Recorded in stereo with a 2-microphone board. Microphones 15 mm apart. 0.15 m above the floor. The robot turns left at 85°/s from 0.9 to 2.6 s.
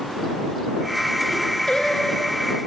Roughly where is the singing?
Left.